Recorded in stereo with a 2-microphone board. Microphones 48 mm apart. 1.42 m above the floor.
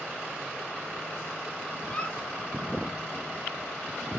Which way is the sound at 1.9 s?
25° left (ahead or behind).